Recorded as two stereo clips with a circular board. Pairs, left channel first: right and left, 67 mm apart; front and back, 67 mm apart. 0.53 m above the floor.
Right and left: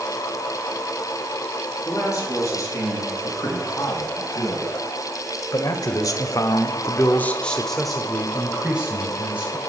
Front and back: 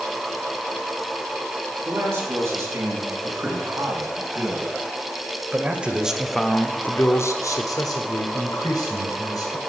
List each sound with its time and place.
1.9 s a man speaking: 135° right, 6 m; by 9.6 s 20° left, 3 m